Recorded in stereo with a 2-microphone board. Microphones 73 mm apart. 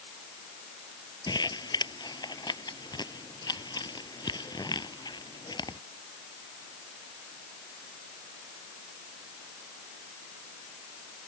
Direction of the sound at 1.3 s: 85° left.